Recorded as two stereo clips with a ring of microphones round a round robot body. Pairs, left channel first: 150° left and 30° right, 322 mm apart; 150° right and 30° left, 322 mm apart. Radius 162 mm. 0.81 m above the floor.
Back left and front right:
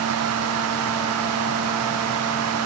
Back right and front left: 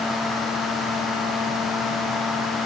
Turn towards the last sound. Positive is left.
No sound to turn to.